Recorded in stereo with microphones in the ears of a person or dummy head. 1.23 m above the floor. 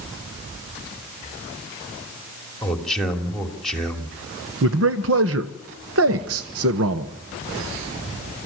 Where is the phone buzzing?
I don't hear a phone buzzing.